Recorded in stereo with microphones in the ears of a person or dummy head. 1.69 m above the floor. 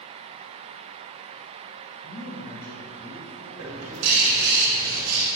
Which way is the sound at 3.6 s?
85° right.